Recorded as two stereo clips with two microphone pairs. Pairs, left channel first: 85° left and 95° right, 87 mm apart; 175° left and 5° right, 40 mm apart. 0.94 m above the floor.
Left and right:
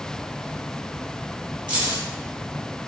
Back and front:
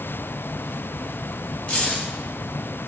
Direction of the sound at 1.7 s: 125° right.